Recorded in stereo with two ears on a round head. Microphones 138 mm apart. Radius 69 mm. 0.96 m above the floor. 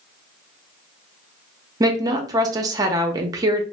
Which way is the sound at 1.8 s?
25° right (ahead or behind).